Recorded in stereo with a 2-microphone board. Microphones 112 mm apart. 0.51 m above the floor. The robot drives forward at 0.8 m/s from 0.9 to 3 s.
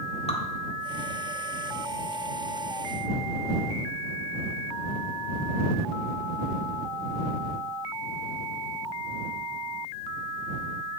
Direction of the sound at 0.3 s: 70° left (ahead or behind).